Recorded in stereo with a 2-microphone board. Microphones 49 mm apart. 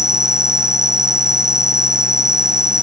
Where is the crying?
I don't hear crying.